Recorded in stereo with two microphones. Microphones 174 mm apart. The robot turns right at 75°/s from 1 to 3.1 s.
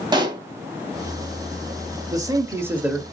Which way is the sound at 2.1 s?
20° right (ahead or behind).